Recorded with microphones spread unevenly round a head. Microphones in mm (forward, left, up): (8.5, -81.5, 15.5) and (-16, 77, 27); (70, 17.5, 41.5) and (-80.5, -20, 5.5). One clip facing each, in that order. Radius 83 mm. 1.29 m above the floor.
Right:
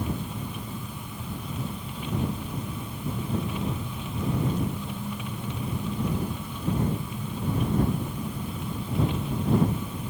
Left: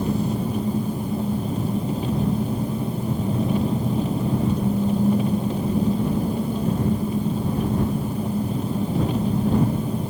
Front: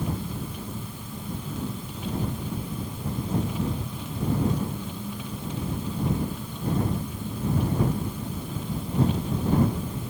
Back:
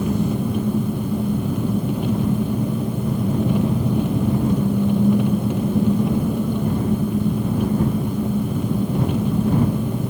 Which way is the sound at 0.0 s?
155° left.